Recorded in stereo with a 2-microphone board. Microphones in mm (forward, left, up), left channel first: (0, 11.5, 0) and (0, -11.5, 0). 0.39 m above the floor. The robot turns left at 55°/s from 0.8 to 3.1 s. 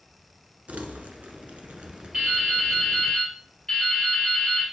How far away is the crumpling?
About 1.2 m.